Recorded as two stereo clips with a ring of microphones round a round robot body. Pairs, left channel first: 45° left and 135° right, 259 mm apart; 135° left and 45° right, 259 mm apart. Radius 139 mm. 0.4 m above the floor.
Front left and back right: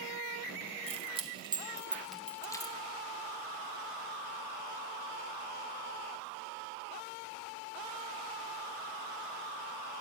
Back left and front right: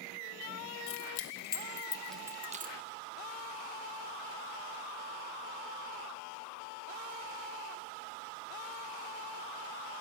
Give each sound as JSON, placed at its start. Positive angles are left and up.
{"t": 0.9, "sound": "keys jangling", "azimuth_deg": 160, "distance_m": 1.4}